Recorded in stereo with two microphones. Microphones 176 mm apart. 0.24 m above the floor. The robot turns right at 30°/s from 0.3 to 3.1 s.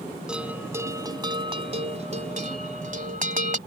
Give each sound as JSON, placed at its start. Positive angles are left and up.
{"t": 0.3, "sound": "a bell", "azimuth_deg": -175}